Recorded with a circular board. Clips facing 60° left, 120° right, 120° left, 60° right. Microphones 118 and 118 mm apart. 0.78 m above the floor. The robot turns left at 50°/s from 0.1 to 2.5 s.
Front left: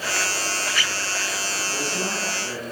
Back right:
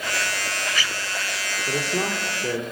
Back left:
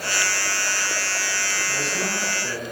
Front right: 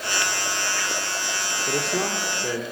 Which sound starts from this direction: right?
A man speaking, at 1.7 s.